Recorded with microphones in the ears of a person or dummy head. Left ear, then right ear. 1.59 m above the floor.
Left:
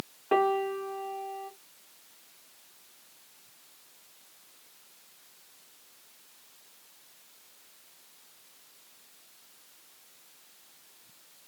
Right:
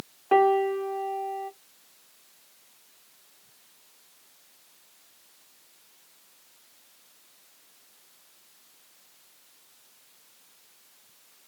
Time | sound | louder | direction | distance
0.3 | a piano | right 5 dB | 5° right (ahead or behind) | 0.5 m